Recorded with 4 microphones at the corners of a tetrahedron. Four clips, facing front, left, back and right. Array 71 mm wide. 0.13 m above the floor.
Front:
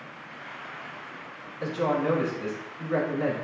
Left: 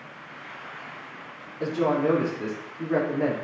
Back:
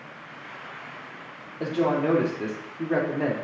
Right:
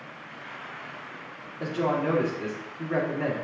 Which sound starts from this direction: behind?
A woman speaking, at 1.6 s.